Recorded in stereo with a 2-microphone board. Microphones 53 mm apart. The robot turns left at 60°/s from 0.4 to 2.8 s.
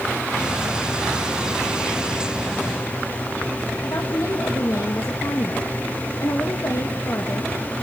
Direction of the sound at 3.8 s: 80° left.